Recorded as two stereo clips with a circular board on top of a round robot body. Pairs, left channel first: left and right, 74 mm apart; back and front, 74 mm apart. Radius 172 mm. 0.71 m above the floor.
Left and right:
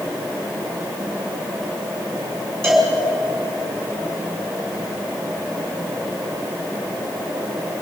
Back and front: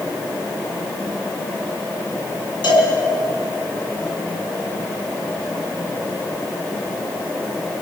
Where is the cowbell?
175° left, 6.5 m.